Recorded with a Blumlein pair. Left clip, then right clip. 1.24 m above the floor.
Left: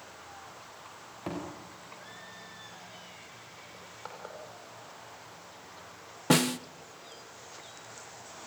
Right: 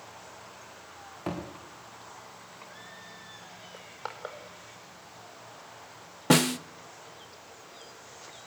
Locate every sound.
1.3 s a thud: 10° right, 7 m
3.7 s crushing: 20° right, 4.5 m
6.3 s a snare drum: 5° right, 0.6 m